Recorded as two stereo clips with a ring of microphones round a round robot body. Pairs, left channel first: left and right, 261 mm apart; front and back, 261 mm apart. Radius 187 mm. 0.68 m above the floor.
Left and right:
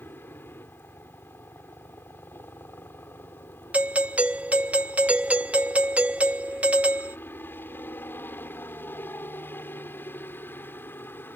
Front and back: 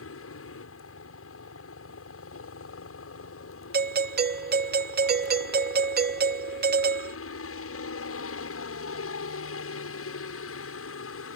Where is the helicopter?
5° left.